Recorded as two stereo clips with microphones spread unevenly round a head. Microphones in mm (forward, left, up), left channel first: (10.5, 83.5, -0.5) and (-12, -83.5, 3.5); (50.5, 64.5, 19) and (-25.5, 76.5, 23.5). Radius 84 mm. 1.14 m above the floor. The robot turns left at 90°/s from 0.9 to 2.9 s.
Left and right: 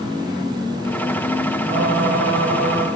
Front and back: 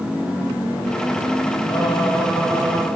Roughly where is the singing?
Ahead right.